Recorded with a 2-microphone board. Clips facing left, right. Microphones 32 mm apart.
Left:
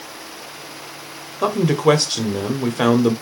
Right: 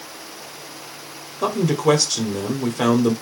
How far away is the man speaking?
About 1.5 m.